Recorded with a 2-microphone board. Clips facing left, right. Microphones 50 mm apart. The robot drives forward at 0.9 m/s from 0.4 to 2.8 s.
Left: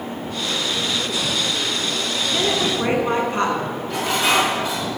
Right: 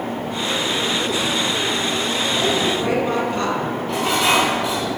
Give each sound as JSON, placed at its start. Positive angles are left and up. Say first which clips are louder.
{"t": 2.3, "sound": "a woman speaking", "louder": "even", "side_deg": 35, "distance_m": 1.9}
{"t": 3.9, "sound": "dishes clattering", "louder": "right 1 dB", "side_deg": -65, "distance_m": 3.0}